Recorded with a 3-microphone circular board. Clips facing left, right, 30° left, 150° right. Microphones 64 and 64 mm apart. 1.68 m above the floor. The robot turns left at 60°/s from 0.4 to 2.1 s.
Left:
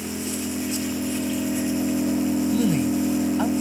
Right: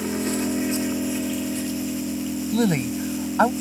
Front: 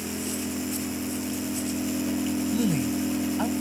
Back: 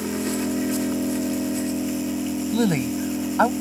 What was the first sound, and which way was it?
An engine running, 125° right.